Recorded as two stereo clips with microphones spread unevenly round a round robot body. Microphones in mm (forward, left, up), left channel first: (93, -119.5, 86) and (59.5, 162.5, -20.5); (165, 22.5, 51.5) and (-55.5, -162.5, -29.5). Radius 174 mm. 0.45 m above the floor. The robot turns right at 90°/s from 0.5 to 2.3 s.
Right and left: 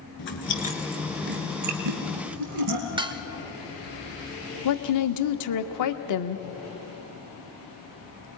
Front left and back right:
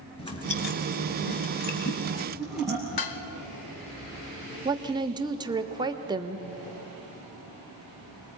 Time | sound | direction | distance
0.2 | chewing | 30° right | 2.5 m
3.0 | dishes clattering | 30° left | 1.3 m
4.7 | a woman speaking | 95° right | 1.0 m